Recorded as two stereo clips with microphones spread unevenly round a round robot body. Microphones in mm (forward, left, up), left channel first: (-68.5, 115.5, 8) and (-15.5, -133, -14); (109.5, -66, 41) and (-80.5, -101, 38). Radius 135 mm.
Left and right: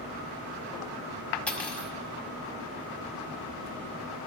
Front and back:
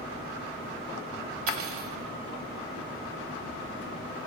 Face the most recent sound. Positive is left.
turn(degrees=-175)